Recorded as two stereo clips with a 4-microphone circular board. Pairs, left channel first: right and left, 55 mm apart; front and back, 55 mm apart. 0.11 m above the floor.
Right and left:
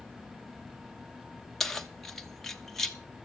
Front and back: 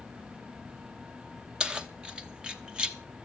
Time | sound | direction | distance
1.6 | keys jangling | 165° right | 0.8 m